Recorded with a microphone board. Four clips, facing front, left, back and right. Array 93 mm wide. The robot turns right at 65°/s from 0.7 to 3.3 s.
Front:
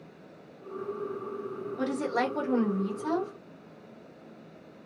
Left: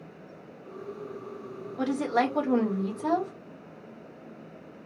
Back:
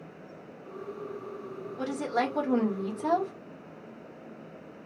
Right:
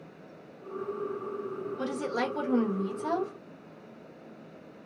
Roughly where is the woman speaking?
Ahead left.